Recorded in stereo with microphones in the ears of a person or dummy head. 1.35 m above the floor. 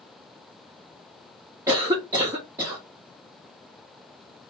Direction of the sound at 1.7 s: 15° right (ahead or behind).